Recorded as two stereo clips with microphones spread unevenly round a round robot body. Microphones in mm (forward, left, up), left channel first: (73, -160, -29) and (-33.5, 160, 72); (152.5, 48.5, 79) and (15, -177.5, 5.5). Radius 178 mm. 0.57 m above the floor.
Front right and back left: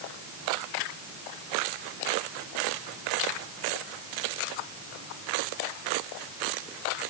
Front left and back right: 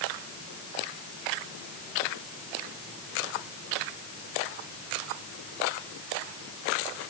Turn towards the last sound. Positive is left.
No sound to turn to.